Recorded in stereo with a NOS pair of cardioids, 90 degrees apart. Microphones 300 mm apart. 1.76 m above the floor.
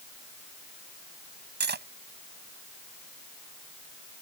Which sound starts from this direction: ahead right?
Cutlery clinking, at 1.6 s.